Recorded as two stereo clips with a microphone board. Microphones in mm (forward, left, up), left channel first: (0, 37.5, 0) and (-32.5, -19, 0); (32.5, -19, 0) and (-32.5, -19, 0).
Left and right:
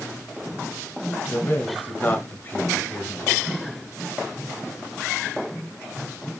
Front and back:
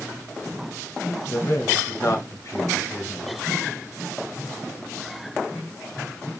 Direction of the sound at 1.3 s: 15° left.